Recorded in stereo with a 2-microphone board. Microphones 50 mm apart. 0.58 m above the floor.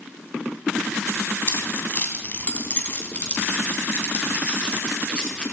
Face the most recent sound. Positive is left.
turn(degrees=20)  # may be behind; listen again after turning